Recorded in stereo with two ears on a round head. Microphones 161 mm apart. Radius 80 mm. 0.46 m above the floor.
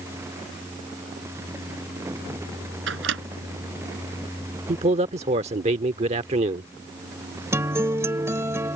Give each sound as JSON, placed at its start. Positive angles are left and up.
{"t": 2.9, "sound": "a microwave", "side_deg": -75}
{"t": 4.7, "sound": "a man speaking", "side_deg": -35}
{"t": 7.5, "sound": "a guitar", "side_deg": -15}